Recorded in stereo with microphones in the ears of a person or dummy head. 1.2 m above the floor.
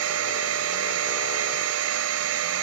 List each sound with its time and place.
0.0 s a machine running: 70° right (ahead or behind), 0.8 m